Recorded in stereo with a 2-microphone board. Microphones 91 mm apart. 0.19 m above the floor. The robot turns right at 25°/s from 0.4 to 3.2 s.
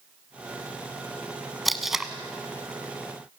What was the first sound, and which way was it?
Tape being pulled, centre (ahead or behind).